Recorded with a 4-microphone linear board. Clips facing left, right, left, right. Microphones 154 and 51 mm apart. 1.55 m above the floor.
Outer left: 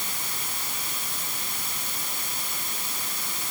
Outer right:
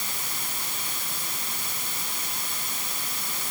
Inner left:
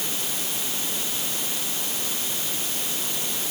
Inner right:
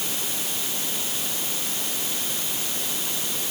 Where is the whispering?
No whispering in this recording.